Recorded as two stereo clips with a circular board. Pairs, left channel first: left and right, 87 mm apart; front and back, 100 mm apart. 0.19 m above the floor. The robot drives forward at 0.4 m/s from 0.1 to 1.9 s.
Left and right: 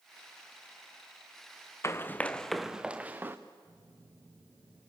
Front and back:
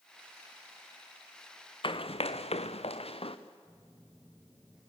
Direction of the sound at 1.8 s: 30° left.